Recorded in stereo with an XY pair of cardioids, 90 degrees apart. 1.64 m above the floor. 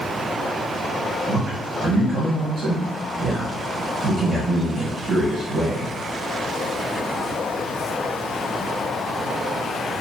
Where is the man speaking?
50° right, 1.8 m.